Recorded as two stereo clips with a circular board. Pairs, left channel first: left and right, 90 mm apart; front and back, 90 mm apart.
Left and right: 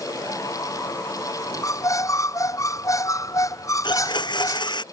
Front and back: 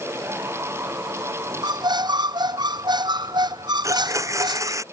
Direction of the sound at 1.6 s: 145° left.